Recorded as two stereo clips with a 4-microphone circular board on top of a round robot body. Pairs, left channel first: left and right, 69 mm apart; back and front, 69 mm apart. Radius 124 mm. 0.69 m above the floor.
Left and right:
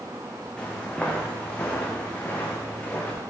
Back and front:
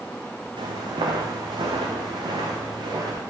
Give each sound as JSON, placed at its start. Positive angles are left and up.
{"t": 0.6, "sound": "footsteps", "azimuth_deg": 15, "distance_m": 2.5}